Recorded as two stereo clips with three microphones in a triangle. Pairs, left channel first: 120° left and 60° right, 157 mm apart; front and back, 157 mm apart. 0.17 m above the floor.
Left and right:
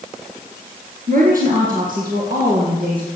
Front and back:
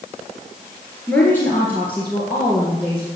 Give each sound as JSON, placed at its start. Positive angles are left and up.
{"t": 1.1, "sound": "a woman speaking", "azimuth_deg": -80, "distance_m": 2.5}